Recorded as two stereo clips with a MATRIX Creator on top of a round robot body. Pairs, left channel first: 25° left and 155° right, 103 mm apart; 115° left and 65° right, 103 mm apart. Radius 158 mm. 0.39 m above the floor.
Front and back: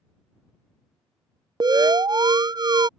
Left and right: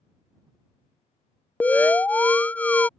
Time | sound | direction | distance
1.6 | an alarm | 175° right | ?